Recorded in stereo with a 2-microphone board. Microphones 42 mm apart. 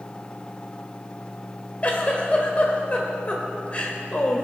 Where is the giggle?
30° left (ahead or behind), 1.6 m.